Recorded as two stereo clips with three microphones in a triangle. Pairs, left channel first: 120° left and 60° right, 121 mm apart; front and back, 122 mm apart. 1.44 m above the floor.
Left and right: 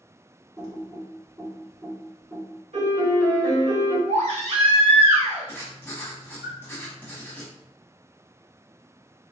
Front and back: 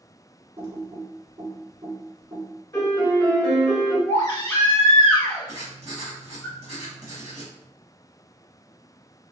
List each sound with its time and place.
0.6 s typing on a keyboard: 120° right, 1.3 m
2.7 s a piano: 50° right, 2.0 m
4.1 s a baby crying: 60° right, 1.7 m
5.5 s writing: 170° right, 1.2 m